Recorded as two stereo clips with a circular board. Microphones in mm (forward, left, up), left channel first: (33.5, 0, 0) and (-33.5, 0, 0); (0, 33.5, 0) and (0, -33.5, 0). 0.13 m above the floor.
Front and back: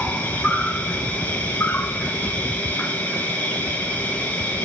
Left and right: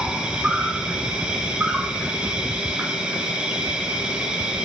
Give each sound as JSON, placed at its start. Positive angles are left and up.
{"t": 0.0, "sound": "an insect", "azimuth_deg": -40, "distance_m": 1.5}